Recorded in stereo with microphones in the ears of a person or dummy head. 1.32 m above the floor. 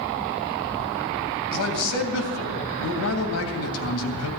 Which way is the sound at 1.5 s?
80° left.